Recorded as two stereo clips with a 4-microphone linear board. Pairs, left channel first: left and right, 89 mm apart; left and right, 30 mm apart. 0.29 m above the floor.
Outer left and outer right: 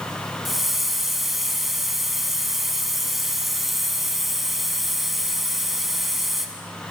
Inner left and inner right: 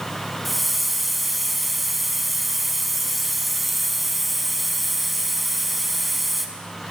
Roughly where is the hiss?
Centre.